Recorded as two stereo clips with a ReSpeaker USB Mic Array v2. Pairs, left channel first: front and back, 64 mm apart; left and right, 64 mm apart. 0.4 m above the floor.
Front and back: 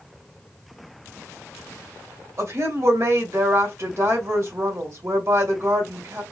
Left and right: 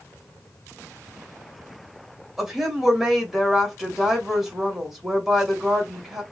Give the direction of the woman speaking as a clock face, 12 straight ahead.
6 o'clock.